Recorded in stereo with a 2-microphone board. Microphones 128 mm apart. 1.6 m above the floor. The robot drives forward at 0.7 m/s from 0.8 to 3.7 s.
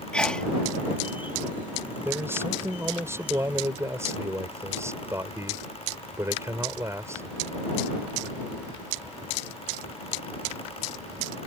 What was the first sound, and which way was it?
A sneeze, 5° left (ahead or behind).